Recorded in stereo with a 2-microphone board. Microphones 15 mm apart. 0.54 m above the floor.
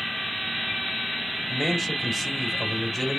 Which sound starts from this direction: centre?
A man speaking, at 1.5 s.